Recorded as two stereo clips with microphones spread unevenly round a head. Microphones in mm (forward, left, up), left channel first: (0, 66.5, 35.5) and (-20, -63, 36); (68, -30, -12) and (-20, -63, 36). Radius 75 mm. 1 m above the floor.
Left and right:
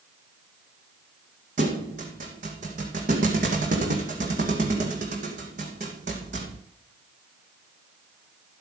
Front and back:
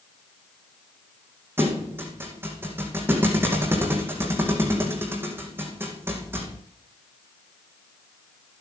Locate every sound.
1.6 s a thud: 120° right, 2 m